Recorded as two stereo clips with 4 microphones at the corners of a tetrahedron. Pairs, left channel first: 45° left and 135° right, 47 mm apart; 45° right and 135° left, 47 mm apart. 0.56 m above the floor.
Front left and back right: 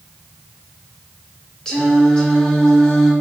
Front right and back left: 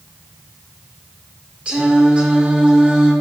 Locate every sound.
1.6 s singing: 100° left, 1.4 m